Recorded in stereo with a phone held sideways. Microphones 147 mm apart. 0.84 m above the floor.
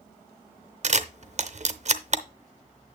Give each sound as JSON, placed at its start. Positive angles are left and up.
{"t": 0.8, "sound": "a camera shutter", "side_deg": -50, "distance_m": 0.7}